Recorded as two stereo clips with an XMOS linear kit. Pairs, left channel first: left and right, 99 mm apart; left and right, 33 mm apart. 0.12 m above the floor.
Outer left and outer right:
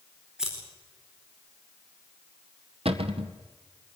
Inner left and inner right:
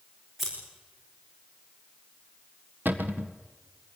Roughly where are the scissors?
Centre.